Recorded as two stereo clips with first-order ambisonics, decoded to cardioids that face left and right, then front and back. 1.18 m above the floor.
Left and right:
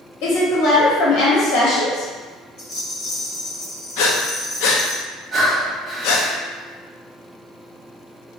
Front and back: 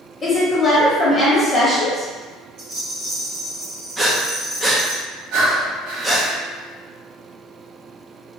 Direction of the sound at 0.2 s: 70° left.